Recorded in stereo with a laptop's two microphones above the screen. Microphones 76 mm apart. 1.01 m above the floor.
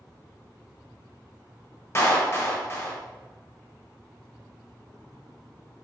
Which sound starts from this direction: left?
A clap, at 1.9 s.